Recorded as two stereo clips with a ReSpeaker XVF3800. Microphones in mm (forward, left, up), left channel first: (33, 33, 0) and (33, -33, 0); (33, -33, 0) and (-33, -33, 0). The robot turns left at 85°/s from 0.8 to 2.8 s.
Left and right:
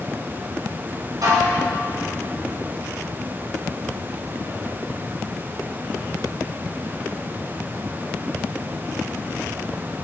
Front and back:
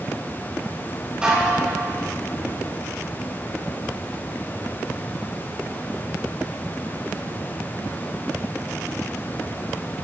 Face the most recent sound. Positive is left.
turn(degrees=125)